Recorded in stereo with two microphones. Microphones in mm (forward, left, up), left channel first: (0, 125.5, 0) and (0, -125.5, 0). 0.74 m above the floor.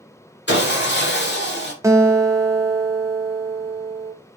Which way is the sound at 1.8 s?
10° right (ahead or behind).